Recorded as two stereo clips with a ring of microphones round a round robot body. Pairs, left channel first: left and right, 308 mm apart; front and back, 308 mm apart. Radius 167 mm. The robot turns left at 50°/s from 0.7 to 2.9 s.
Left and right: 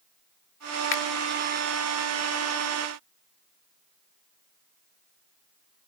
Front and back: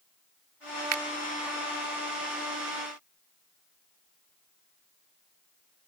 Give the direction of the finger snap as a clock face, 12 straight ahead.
7 o'clock.